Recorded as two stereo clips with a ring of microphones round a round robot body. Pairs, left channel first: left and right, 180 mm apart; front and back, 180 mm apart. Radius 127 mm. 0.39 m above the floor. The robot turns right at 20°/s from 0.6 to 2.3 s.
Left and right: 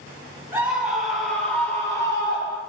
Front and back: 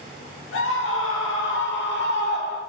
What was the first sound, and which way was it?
A scream, 15° right.